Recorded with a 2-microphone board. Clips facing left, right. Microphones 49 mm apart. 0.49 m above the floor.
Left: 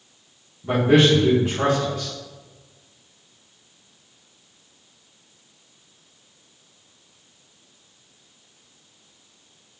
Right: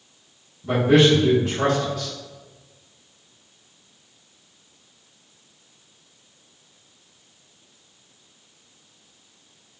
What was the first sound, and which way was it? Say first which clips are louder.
A man speaking: even; 15° left (ahead or behind).